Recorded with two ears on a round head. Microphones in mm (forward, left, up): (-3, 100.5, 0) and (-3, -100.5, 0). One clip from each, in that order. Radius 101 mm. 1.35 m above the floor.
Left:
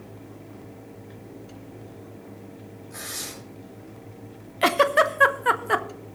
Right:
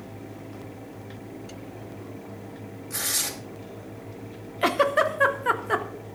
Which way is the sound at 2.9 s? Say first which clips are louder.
Right 7 dB; 70° right (ahead or behind).